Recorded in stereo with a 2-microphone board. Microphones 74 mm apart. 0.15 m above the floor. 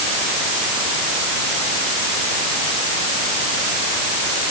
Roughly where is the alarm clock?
No alarm clock in this recording.